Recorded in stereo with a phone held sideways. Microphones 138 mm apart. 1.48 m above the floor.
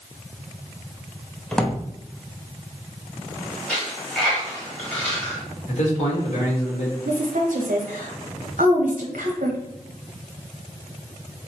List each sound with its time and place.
1.5 s a drawer: 5° left (ahead or behind), 0.6 m
3.7 s a dropped coin: 10° left (ahead or behind), 1.5 m
5.7 s a man speaking: 55° left (ahead or behind), 1.4 m
7.0 s a woman speaking: 90° right, 0.8 m